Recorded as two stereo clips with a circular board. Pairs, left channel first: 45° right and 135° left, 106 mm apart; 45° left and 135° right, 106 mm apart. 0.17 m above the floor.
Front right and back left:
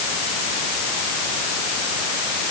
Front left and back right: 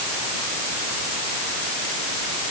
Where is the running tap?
I don't hear a running tap.